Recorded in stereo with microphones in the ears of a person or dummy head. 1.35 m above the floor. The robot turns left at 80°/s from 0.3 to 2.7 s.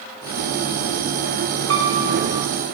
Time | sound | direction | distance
1.7 | a piano | 95° right | 1.7 m